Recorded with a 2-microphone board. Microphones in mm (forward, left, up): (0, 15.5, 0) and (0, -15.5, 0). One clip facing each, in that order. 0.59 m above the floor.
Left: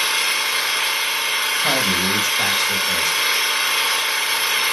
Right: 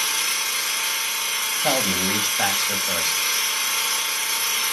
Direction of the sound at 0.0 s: 35° left (ahead or behind).